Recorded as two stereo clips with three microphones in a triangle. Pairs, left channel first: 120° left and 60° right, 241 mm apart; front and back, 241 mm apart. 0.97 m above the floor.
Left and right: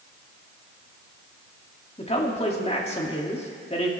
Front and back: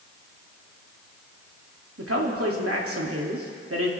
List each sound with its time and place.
2.0 s a man speaking: straight behind, 2.5 m